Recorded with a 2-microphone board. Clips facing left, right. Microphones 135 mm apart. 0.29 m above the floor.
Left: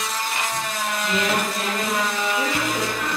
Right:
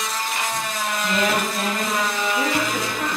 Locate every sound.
1.0 s a woman speaking: 55° right (ahead or behind), 1.5 m